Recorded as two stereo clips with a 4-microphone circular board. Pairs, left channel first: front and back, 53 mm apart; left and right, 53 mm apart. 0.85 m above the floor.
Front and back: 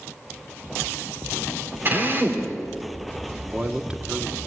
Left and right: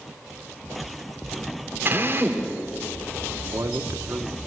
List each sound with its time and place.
1.9 s a drill: 135° right, 3 m
3.4 s a man speaking: 110° right, 1.4 m